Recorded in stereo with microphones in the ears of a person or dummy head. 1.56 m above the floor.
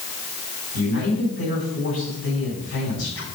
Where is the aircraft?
I don't hear an aircraft.